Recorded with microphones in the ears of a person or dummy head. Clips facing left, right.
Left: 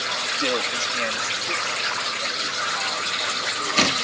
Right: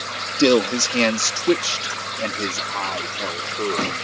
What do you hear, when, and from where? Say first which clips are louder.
0.4 s a man speaking: right 12 dB; 60° right (ahead or behind)